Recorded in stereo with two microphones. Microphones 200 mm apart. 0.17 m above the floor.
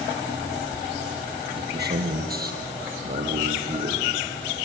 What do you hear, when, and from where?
1.5 s a man speaking: 55° right (ahead or behind), 6.5 m; by 4.1 s 40° right (ahead or behind), 6.5 m